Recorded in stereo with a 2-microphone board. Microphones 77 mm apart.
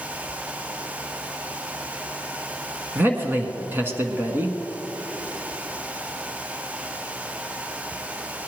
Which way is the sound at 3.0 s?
30° right (ahead or behind).